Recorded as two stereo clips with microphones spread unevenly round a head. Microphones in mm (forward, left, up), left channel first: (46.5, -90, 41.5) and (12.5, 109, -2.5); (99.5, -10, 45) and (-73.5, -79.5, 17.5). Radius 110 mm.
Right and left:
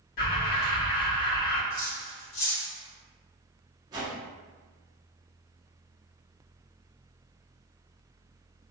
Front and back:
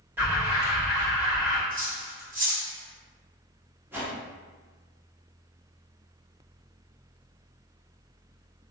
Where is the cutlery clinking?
110° right, 1.5 m.